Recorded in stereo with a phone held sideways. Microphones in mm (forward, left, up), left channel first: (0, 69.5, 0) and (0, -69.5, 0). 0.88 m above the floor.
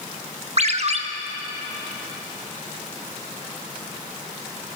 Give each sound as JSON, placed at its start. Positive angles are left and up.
{"t": 0.6, "sound": "a ringtone", "side_deg": -50, "distance_m": 0.6}